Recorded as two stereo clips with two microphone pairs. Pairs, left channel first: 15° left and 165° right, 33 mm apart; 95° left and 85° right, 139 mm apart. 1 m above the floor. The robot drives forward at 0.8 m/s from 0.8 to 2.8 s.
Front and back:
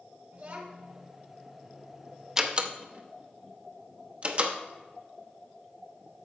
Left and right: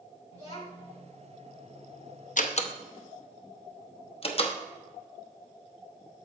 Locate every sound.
0.3 s a child speaking: 135° left, 2.5 m; by 1.0 s 140° left, 2.5 m
2.4 s a door slam: 115° left, 0.6 m; by 4.5 s 140° left, 0.8 m